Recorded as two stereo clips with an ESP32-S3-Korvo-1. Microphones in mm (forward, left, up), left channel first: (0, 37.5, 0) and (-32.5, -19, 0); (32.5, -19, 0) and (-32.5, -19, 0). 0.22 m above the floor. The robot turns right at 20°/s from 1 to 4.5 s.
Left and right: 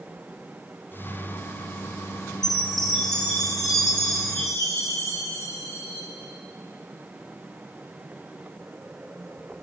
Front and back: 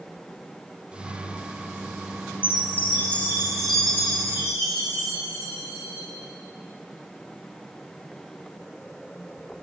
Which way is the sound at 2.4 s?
60° left.